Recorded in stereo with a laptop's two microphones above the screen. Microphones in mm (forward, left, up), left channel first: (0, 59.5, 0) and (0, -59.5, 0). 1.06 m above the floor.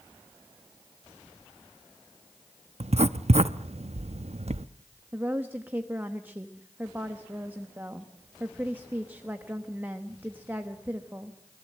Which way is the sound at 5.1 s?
15° right (ahead or behind).